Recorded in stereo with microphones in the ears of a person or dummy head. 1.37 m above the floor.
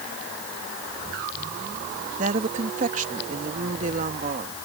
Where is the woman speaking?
40° right (ahead or behind).